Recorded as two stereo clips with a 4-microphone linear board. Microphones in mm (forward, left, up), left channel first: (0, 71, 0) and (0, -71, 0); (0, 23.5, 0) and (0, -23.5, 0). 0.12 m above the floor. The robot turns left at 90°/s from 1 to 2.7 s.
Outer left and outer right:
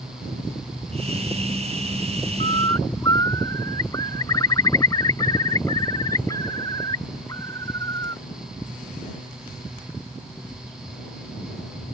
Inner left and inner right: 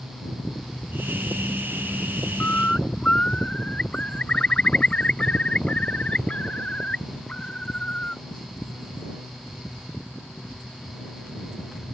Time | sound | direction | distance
2.4 | a bird | 50° left (ahead or behind) | ?